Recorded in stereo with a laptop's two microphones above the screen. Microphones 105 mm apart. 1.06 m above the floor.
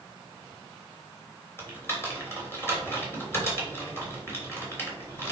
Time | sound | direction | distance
1.6 | typing on a keyboard | 20° left (ahead or behind) | 3 m